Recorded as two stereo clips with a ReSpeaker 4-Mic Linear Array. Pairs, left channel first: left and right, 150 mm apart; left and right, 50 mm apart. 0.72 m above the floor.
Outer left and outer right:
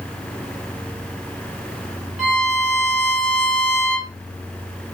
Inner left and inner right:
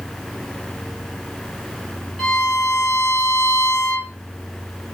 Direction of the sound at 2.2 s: Centre (ahead or behind).